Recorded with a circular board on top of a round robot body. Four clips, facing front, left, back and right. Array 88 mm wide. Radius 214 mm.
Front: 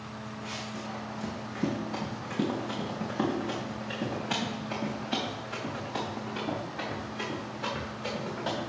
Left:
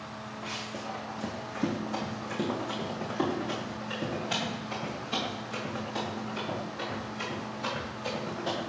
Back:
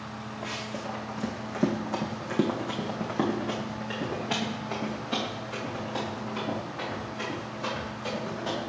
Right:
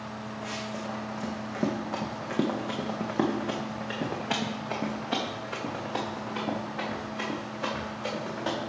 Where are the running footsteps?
165° right, 1.9 m; by 8.6 s 75° right, 4 m.